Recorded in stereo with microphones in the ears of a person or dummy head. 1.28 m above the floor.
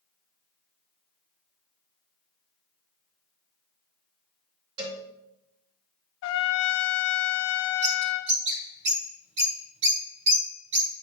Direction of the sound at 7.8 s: 45° right (ahead or behind).